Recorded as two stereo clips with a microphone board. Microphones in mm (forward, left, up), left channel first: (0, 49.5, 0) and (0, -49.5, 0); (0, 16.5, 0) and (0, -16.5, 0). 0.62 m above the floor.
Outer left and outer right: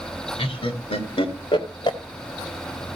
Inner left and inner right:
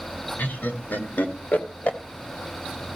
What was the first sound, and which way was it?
Laughter, 75° left (ahead or behind).